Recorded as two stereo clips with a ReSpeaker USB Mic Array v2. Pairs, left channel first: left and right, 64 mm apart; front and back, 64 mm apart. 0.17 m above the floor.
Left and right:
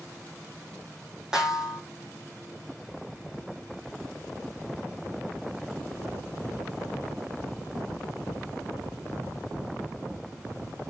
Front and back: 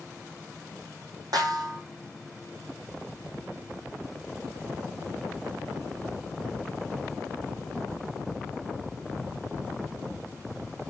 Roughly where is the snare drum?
Behind.